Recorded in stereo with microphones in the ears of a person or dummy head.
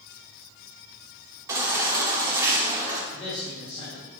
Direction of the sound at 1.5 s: 20° right (ahead or behind).